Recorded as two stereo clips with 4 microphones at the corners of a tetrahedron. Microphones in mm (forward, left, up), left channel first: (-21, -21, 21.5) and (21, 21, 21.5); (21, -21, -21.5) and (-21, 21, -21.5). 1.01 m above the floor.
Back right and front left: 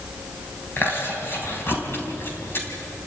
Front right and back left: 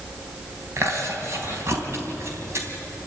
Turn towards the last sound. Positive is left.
turn(degrees=175)